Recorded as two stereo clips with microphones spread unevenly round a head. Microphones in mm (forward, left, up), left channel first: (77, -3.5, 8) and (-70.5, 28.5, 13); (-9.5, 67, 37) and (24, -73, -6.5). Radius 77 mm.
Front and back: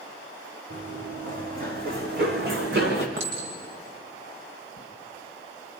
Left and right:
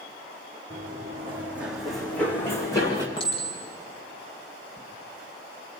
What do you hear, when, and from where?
0.7 s running footsteps: 145° right, 3.5 m; by 3.1 s 155° left, 3.5 m
3.2 s a clink: 160° left, 5 m